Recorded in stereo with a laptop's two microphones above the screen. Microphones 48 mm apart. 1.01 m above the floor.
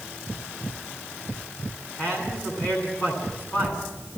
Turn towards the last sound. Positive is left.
turn(degrees=45)  # may be behind; listen again after turning